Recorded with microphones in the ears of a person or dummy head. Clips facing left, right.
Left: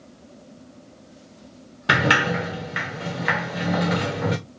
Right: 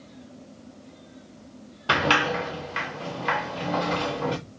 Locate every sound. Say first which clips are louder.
1.9 s a sliding door: left 2 dB; 15° left (ahead or behind), 0.5 m